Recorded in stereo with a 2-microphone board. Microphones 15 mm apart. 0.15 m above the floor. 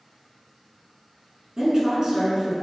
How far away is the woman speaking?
About 1.5 m.